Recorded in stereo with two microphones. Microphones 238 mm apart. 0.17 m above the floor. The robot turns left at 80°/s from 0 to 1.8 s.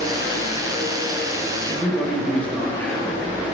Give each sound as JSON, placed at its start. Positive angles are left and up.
{"t": 1.6, "sound": "a man speaking", "side_deg": 20, "distance_m": 4.0}